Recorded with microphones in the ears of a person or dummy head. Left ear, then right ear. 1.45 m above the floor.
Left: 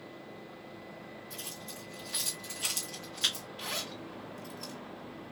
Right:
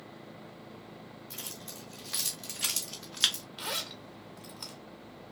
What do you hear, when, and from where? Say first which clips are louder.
1.3 s keys jangling: right 1 dB; 20° right (ahead or behind), 2.5 m; by 3.5 s 40° right (ahead or behind), 1.1 m
3.6 s a zipper: right 2 dB; 35° right (ahead or behind), 1.5 m